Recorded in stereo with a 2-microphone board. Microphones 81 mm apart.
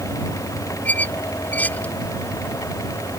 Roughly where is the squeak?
Centre.